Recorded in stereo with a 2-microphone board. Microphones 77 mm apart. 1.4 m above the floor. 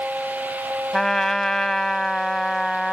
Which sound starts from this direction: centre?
A trumpet, at 0.9 s.